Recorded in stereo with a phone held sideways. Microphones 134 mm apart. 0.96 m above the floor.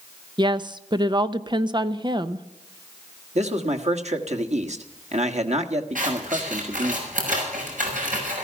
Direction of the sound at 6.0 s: 85° right.